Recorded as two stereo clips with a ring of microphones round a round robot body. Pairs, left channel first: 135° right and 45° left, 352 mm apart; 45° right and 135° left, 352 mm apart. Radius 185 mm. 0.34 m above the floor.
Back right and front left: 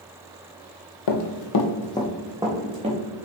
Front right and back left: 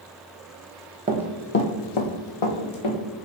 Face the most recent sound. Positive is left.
turn(degrees=-30)